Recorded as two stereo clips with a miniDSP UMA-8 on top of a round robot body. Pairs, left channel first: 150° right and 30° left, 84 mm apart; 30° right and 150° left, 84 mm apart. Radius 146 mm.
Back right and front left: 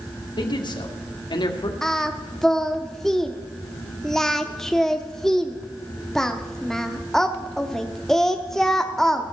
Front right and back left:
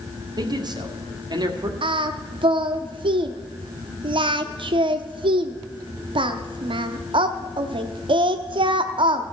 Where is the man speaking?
175° right, 1.9 m.